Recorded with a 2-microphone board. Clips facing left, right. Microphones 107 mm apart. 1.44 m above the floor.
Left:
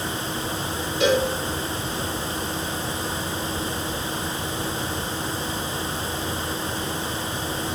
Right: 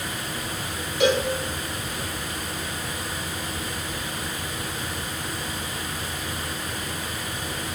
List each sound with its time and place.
1.0 s a cowbell: 75° right (ahead or behind), 4 m